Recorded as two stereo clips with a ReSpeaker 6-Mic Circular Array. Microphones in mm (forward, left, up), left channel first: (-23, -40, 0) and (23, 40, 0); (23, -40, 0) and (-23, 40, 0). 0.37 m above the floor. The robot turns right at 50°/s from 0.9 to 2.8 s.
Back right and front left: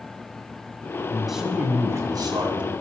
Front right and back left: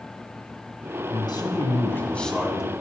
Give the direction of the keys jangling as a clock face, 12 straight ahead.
No keys jangling in this recording.